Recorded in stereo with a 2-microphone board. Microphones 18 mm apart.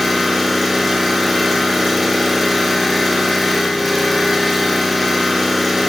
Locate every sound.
0.0 s an engine running: centre (ahead or behind), 4 m